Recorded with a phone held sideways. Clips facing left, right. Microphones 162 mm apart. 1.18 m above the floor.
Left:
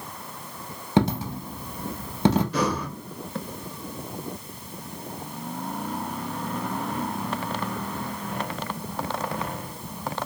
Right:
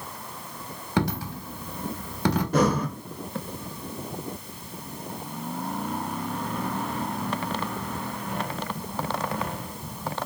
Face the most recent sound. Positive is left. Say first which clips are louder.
# right 4 dB
turn(degrees=-50)  # may be behind; listen again after turning